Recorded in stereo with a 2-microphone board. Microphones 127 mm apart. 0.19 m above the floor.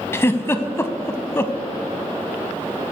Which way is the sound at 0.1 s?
20° left (ahead or behind).